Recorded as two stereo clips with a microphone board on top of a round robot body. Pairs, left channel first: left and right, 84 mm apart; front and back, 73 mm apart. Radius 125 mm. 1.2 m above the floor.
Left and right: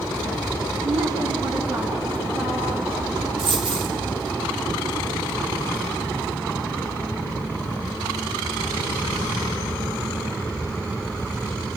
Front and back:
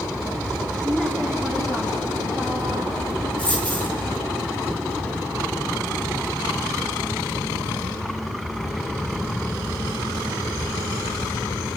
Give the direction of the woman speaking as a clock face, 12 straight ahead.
3 o'clock.